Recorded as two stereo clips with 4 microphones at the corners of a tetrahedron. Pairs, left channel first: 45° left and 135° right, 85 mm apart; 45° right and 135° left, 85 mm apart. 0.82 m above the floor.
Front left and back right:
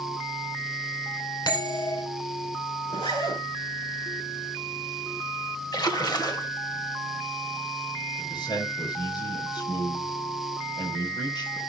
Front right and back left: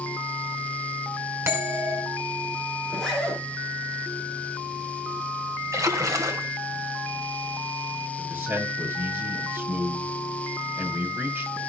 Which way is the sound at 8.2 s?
70° left.